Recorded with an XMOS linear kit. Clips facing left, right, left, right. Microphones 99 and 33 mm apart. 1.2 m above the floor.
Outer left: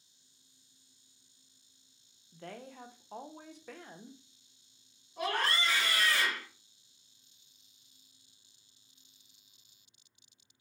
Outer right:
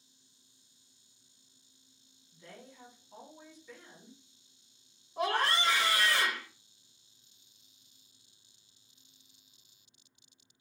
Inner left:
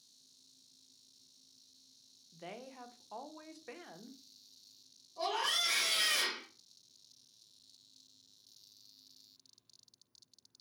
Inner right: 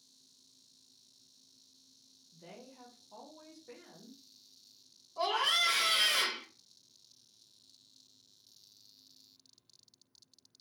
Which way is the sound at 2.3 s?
65° left (ahead or behind).